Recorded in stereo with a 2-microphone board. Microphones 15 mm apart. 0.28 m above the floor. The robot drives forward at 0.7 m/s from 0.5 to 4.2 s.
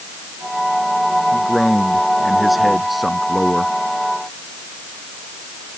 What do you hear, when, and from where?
1.3 s a man speaking: centre (ahead or behind)